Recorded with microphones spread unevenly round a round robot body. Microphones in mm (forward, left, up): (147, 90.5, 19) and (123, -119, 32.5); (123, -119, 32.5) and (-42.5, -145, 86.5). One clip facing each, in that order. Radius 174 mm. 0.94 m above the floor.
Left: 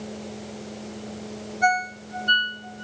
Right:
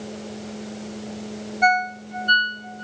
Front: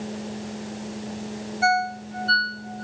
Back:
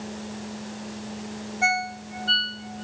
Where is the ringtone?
150° left, 2.5 m.